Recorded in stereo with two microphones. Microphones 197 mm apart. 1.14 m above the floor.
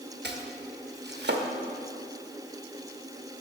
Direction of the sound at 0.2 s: 65° right (ahead or behind).